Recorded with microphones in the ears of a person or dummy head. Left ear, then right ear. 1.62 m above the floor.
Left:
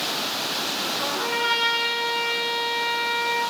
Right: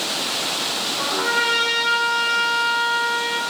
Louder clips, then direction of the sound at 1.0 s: Right 6 dB; 65° right (ahead or behind).